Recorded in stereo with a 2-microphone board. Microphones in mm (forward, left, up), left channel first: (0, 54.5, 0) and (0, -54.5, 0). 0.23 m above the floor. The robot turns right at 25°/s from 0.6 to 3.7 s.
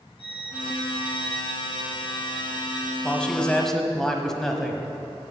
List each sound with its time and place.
0.2 s a violin: 80° left, 2.5 m; by 2.9 s 140° left, 2.5 m
3.0 s a man speaking: 10° left (ahead or behind), 1.0 m; by 5.3 s 5° left (ahead or behind), 1.0 m